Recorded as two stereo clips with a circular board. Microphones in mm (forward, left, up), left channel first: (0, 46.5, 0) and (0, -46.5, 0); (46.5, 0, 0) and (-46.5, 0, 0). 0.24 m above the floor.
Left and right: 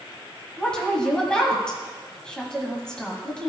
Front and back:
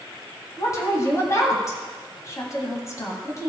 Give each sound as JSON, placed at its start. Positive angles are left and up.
{"t": 0.6, "sound": "a woman speaking", "azimuth_deg": 15, "distance_m": 1.8}